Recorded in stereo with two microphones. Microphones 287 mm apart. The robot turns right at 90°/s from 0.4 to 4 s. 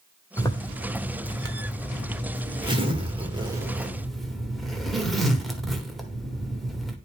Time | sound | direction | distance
0.4 | a zipper | 10° left (ahead or behind) | 1.3 m